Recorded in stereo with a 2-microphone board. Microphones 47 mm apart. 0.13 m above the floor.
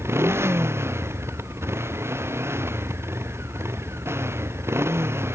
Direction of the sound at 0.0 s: 70° right (ahead or behind).